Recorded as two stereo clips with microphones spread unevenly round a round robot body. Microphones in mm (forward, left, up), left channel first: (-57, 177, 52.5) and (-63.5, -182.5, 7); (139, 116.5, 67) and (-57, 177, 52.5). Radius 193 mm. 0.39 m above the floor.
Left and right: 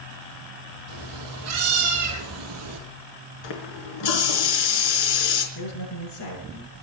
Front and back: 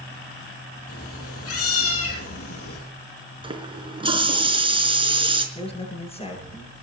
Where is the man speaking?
45° left, 10 m.